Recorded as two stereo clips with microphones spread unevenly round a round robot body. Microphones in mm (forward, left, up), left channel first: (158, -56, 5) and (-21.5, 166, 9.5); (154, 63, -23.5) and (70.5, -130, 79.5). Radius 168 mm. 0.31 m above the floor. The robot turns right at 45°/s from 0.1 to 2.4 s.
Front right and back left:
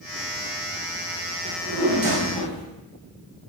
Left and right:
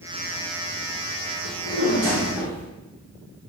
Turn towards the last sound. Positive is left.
turn(degrees=135)